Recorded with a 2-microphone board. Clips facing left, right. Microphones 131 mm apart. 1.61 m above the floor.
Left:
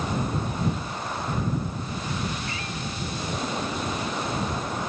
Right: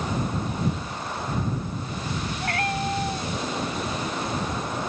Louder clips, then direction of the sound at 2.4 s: Right 7 dB; 60° right (ahead or behind).